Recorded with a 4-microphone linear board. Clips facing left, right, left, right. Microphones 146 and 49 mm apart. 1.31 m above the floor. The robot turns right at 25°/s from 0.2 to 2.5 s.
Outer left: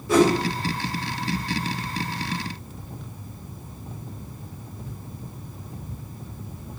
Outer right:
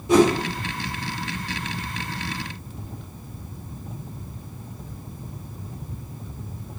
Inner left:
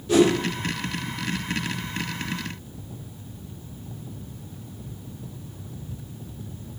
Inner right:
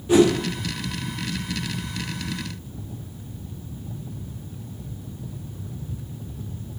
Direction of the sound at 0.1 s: 20° right (ahead or behind).